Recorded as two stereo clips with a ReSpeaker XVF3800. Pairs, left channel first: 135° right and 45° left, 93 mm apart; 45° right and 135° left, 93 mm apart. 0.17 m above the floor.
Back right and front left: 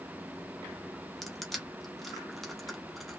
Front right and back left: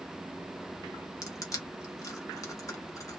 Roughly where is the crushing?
Ahead right.